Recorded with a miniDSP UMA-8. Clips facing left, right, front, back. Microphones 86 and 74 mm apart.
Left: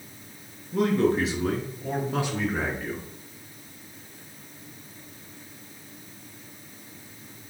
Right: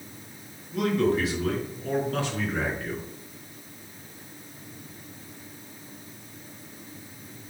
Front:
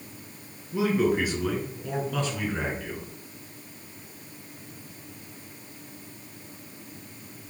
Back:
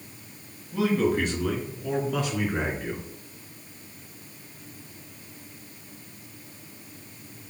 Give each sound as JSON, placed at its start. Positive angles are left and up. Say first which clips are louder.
{"t": 0.7, "sound": "a man speaking", "louder": "left 1 dB, even", "azimuth_deg": 65, "distance_m": 1.5}